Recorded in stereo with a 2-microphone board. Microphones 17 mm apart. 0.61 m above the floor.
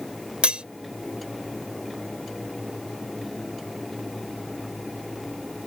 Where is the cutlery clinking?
70° right (ahead or behind).